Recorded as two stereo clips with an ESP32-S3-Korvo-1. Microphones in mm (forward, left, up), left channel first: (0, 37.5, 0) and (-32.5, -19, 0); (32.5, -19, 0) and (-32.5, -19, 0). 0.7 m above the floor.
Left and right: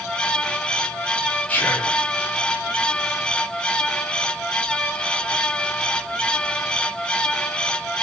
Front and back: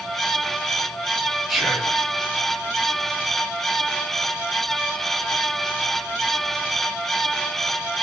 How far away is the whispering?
About 0.6 m.